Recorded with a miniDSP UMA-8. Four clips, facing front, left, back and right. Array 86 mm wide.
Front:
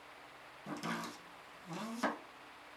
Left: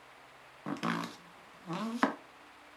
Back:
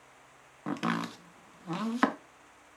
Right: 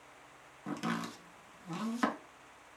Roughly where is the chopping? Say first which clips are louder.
Left 2 dB, back 9 dB; behind left.